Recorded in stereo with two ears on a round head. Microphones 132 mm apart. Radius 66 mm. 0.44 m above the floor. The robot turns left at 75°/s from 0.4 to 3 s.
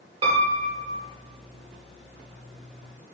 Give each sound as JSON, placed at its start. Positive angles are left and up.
{"t": 0.2, "sound": "a piano", "azimuth_deg": -75, "distance_m": 0.9}